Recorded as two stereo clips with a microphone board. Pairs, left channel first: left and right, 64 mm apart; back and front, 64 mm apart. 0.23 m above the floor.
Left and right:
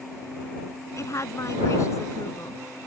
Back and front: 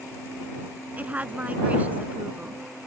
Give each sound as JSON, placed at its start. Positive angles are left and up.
{"t": 1.0, "sound": "a woman speaking", "azimuth_deg": 65}